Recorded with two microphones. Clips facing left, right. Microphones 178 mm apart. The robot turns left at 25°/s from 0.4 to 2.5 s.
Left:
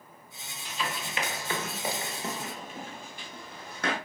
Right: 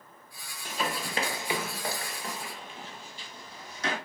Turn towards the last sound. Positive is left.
turn(degrees=60)  # may be behind; listen again after turning